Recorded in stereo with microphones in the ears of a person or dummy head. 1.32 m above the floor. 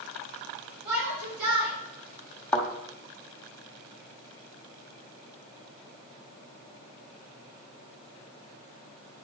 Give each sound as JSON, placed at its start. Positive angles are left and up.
{"t": 0.8, "sound": "a shout", "side_deg": -55, "distance_m": 5.0}
{"t": 2.5, "sound": "a thud", "side_deg": 10, "distance_m": 1.9}